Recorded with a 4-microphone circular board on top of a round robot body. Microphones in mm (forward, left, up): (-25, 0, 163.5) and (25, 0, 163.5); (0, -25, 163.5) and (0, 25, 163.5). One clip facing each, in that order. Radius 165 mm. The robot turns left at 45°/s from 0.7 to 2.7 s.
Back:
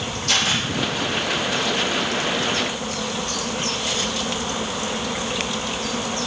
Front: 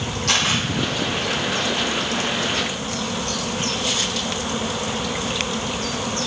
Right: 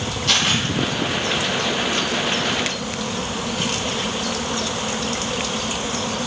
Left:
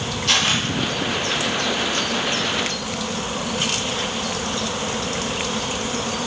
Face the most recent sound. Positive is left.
turn(degrees=-95)